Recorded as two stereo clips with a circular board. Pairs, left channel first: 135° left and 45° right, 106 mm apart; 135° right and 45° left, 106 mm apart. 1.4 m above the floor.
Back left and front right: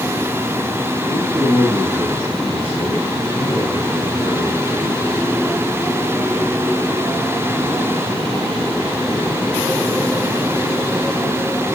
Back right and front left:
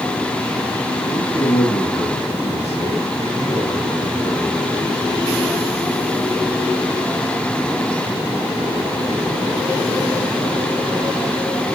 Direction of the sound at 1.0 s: 145° right.